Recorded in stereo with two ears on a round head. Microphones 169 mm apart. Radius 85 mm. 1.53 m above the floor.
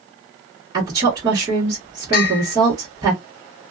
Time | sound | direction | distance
0.7 | a woman speaking | 25° right (ahead or behind) | 1.4 m
2.1 | a bell | 55° left (ahead or behind) | 0.8 m